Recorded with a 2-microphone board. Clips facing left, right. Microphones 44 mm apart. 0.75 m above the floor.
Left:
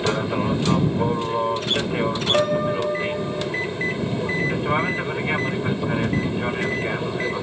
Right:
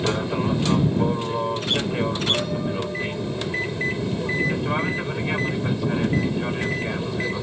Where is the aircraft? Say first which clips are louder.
Left 1 dB; 15° left (ahead or behind); by 7.4 s 20° left (ahead or behind).